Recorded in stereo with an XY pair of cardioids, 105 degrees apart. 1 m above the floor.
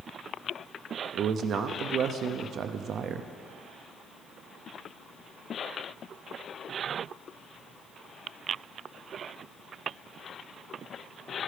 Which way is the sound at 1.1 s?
65° right.